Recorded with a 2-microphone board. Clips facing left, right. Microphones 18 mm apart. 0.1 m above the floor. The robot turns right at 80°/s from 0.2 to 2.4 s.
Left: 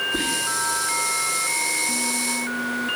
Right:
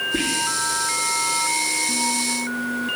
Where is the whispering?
50° right (ahead or behind), 3 m; by 0.8 s 45° right (ahead or behind), 3 m.